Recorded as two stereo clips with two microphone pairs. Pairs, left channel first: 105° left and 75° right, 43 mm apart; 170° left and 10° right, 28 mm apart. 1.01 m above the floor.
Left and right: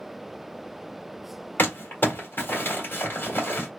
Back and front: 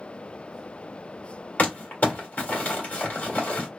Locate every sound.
1.6 s crumpling: 145° left, 1.5 m